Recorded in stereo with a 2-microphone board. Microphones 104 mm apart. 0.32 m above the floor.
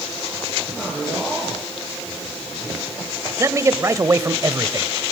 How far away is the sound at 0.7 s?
About 10 m.